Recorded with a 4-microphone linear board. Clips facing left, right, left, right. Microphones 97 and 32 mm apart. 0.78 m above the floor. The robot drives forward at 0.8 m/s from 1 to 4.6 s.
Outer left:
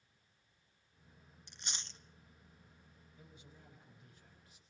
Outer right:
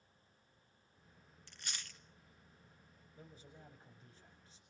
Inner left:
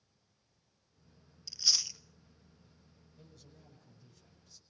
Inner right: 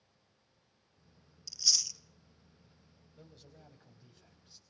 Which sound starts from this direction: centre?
Chewing, at 1.5 s.